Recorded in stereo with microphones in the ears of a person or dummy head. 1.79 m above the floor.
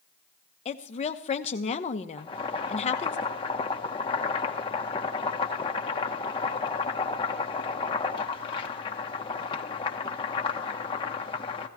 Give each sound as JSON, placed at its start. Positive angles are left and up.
{"t": 0.7, "sound": "a woman speaking", "side_deg": 35, "distance_m": 1.0}
{"t": 2.2, "sound": "boiling", "side_deg": 25, "distance_m": 1.1}